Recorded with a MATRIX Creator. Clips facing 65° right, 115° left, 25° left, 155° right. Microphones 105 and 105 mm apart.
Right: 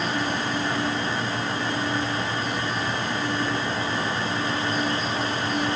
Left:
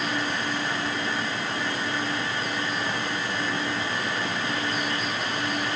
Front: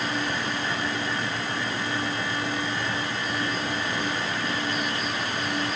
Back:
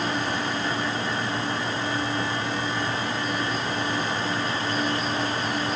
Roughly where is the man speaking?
No man speaking in this recording.